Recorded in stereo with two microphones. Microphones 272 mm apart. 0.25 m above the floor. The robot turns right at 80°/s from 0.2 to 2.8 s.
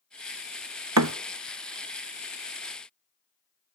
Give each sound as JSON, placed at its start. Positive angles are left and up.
{"t": 1.0, "sound": "a thud", "side_deg": -85, "distance_m": 0.6}